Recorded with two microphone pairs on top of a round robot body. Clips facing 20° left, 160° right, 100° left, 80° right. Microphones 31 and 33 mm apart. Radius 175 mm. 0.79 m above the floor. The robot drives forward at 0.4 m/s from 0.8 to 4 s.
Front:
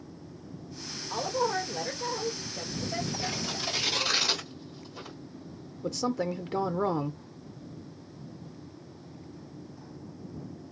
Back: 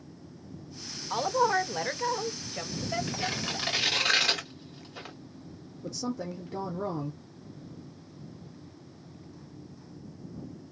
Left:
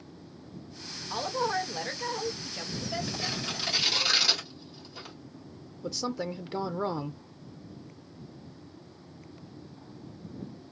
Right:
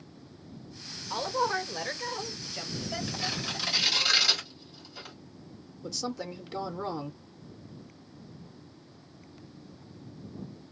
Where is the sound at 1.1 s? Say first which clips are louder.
Back 4 dB, right 1 dB; 150° right, 0.9 m; by 4.1 s 170° right, 1.8 m.